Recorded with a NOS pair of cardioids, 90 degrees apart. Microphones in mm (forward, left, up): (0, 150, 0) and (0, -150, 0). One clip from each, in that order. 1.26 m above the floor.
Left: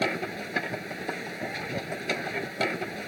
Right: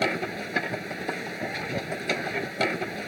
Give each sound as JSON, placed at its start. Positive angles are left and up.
{"t": 0.0, "sound": "a machine running", "azimuth_deg": -20}